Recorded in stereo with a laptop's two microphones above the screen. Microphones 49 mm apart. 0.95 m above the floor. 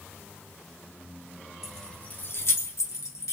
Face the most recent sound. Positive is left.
turn(degrees=75)  # may be behind; listen again after turning